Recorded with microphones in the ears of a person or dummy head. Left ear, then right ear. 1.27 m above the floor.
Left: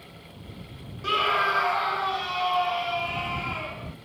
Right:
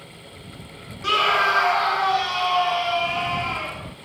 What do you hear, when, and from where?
1.0 s a scream: 15° right (ahead or behind); by 4.0 s 20° right (ahead or behind)